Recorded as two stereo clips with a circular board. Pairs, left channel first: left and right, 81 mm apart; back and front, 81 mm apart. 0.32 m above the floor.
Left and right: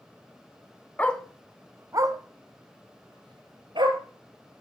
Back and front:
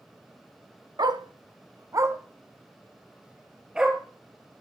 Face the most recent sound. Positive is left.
turn(degrees=-80)